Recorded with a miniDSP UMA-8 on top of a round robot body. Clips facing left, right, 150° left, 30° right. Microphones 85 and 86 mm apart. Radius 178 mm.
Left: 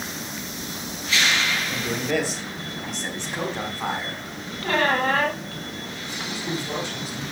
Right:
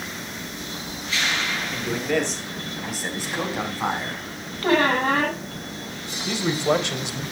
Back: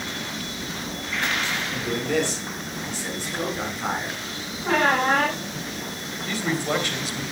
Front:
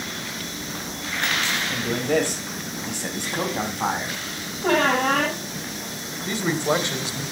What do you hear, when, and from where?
1.7 s a man speaking: 15° left, 4 m; by 4.5 s 20° right, 6.5 m
4.6 s a squeak: 30° right, 10 m
6.2 s a man speaking: 95° right, 3 m